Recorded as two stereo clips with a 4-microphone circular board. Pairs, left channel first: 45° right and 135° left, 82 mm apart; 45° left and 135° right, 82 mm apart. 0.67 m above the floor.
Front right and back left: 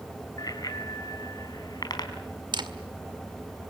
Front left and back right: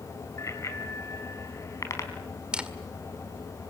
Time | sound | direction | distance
0.4 | a bicycle bell | 5° right | 2.5 m
2.5 | a camera shutter | 150° left | 1.9 m